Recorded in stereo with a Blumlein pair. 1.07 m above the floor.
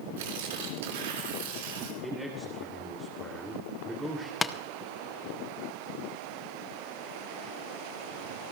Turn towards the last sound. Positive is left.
turn(degrees=15)